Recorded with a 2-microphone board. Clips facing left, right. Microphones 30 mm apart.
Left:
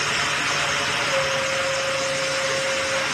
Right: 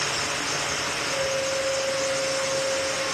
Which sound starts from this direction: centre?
A flute, at 1.1 s.